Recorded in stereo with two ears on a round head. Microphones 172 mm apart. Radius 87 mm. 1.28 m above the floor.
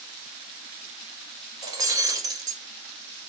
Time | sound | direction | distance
1.6 | breaking glass | 20° right (ahead or behind) | 3 m